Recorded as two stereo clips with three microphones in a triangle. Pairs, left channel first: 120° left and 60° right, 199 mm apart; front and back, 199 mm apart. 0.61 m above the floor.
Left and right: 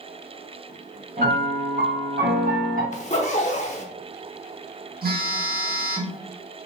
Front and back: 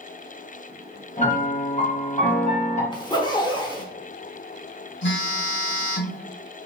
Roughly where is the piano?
Ahead right.